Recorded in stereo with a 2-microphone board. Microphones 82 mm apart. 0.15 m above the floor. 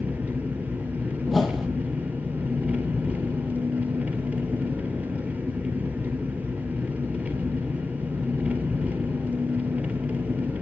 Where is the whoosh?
Centre (ahead or behind), 1.6 m.